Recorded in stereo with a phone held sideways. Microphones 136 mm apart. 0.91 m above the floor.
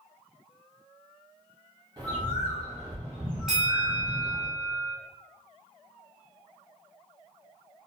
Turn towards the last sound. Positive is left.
turn(degrees=0)  # may be behind; listen again after turning